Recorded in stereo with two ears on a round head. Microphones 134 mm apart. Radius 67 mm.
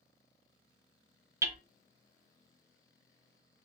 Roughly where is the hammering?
Centre.